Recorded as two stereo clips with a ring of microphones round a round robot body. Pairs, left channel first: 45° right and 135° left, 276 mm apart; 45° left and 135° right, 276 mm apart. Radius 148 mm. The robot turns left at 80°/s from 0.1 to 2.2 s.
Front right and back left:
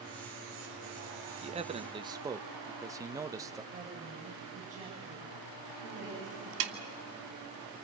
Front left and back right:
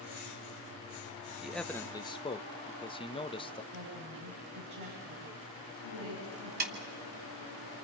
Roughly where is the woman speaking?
Behind.